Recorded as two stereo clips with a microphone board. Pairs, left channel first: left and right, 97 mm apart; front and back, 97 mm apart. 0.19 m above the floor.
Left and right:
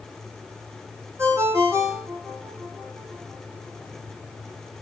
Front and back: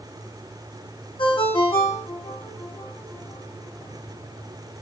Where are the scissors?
I don't hear scissors.